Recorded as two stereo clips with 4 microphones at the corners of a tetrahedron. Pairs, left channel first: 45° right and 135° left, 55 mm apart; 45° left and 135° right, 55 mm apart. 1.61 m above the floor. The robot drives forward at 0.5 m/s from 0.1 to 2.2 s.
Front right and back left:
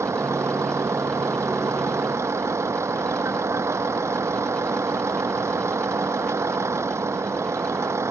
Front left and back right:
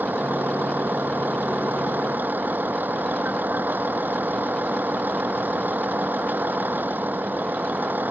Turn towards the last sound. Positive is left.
turn(degrees=165)